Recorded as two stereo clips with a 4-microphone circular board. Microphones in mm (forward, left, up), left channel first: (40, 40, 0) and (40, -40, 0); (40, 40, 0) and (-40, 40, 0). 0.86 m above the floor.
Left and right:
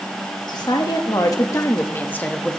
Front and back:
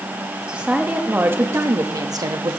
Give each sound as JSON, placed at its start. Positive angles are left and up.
{"t": 0.5, "sound": "a woman speaking", "azimuth_deg": 105, "distance_m": 1.4}